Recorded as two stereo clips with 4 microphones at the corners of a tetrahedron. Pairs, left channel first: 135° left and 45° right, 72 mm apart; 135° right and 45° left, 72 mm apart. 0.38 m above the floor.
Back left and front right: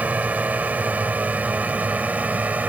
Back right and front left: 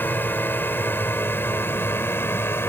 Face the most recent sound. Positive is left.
turn(degrees=-105)